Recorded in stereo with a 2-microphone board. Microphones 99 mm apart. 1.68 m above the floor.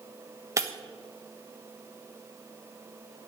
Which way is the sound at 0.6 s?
30° right (ahead or behind).